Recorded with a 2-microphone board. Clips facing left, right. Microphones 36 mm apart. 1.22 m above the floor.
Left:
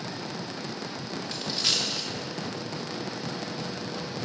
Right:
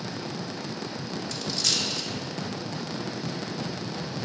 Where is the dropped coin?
25° left (ahead or behind), 0.9 m.